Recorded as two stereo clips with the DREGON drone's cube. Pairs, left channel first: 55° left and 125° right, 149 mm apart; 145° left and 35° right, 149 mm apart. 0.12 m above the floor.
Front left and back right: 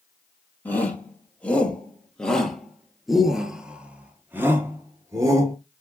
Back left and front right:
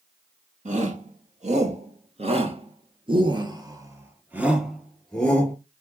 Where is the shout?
20° right, 2.5 m; by 5.5 s 155° right, 1.3 m.